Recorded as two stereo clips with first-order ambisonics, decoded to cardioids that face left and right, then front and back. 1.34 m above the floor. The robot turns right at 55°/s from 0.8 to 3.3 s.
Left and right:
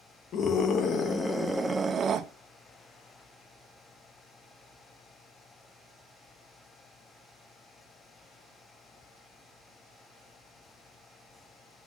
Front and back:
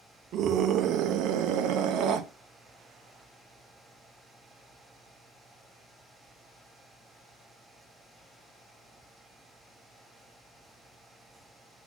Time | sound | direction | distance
0.3 | a scream | 140° left | 0.8 m